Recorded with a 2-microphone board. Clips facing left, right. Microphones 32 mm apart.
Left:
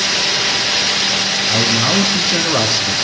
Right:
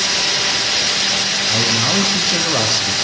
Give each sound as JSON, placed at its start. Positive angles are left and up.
{"t": 1.5, "sound": "a man speaking", "side_deg": 5, "distance_m": 4.5}